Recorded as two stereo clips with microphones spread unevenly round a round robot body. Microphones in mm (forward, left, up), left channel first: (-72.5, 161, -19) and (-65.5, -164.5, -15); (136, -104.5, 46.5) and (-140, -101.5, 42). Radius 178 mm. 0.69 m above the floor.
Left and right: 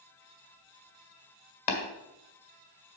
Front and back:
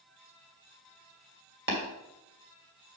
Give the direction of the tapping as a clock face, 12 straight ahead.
8 o'clock.